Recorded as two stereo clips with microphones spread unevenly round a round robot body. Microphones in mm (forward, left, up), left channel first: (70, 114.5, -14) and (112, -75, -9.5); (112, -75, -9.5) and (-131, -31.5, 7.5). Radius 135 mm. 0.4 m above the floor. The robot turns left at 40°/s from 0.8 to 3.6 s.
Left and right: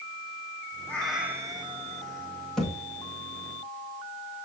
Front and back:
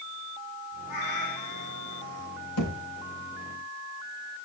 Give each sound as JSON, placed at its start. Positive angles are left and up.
{"t": 0.9, "sound": "a cat meowing", "azimuth_deg": 20, "distance_m": 4.0}
{"t": 2.6, "sound": "a thud", "azimuth_deg": 15, "distance_m": 5.0}